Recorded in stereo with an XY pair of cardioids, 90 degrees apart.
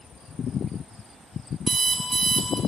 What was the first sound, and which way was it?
An alarm clock, 45° right.